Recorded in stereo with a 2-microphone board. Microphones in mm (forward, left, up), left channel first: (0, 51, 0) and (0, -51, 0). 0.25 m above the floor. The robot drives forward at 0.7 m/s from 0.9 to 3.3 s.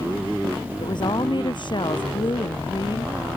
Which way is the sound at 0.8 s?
50° left (ahead or behind).